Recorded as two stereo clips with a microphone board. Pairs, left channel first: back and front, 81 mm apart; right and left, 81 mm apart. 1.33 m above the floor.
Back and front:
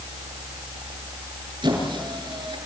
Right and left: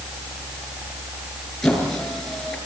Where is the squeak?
5° right, 8 m.